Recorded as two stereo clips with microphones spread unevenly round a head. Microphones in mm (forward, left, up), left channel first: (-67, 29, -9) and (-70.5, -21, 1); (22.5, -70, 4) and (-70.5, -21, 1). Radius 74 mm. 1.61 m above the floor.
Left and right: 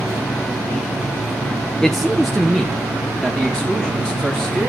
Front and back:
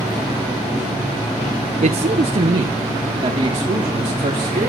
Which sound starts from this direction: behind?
A man speaking, at 1.8 s.